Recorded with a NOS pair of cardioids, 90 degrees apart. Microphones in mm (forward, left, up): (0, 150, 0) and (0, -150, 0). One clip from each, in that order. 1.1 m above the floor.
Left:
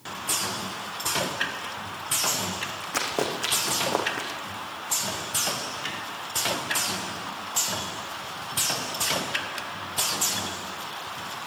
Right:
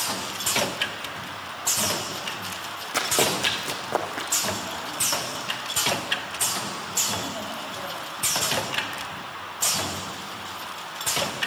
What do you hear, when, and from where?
2.9 s running footsteps: 5° left, 4.5 m